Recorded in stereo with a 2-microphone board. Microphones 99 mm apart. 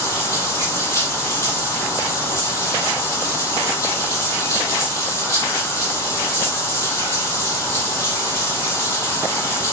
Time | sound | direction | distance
0.0 | running water | 25° left (ahead or behind) | 4.5 m